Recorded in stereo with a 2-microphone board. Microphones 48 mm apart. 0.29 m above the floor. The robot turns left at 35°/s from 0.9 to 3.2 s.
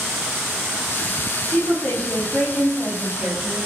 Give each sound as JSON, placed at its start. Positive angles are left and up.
{"t": 1.5, "sound": "a woman speaking", "azimuth_deg": 40, "distance_m": 1.9}